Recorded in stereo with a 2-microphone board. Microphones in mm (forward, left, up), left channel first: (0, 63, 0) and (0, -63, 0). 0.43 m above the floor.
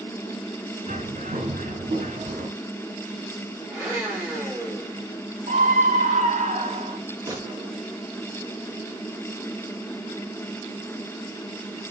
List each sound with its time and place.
0.9 s a bird: 75° right (ahead or behind), 1.6 m
3.7 s a blender: 15° right (ahead or behind), 4 m
5.5 s a scream: 70° right (ahead or behind), 2.5 m
7.3 s a gunshot: 25° right (ahead or behind), 4 m